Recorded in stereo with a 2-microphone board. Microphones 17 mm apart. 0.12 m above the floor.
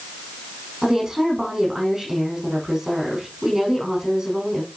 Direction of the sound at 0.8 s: 30° right (ahead or behind).